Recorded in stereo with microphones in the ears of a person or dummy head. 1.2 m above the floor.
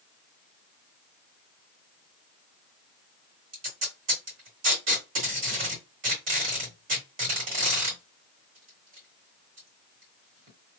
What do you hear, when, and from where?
3.5 s tape being pulled: 40° right (ahead or behind), 1.9 m